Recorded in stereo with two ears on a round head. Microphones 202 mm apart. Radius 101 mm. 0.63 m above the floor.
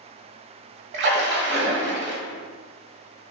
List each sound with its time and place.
0.9 s a splash: 50° right (ahead or behind), 0.8 m